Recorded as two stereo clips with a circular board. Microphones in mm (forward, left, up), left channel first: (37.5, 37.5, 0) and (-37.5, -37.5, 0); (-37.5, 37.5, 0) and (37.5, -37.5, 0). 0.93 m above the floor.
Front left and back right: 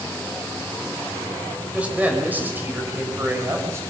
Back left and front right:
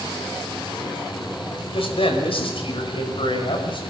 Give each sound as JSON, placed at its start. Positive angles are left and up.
{"t": 1.7, "sound": "a man speaking", "azimuth_deg": 150, "distance_m": 5.5}